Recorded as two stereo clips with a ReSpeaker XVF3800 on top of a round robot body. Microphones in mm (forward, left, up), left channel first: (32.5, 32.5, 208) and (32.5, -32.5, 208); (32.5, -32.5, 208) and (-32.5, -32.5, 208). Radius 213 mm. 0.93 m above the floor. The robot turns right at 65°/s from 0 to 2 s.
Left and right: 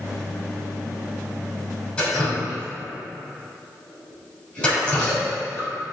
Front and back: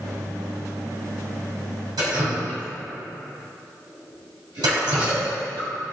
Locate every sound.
2.0 s dripping: 165° left, 2.5 m